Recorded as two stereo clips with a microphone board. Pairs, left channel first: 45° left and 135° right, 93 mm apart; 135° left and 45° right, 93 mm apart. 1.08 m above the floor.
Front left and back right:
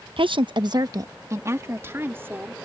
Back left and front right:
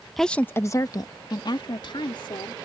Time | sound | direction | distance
0.2 | a woman speaking | 135° right | ?